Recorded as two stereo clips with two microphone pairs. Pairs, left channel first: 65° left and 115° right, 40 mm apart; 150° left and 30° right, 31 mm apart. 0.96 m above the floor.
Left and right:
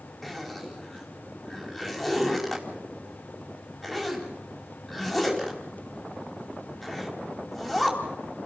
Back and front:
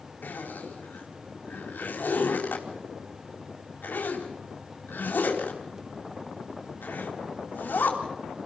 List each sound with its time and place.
0.2 s a zipper: 150° left, 4 m